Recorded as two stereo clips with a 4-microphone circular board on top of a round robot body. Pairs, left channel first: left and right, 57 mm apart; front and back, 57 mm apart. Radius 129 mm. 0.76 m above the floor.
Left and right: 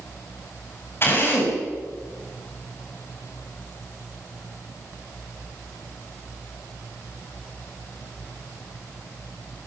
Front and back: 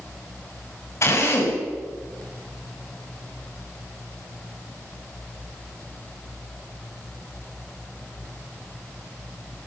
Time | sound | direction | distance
1.0 | a drill | 40° left | 6.5 m